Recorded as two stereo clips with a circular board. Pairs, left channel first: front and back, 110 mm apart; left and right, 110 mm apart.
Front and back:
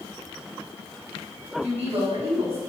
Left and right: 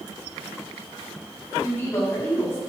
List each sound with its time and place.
1.6 s a woman speaking: 155° left, 6 m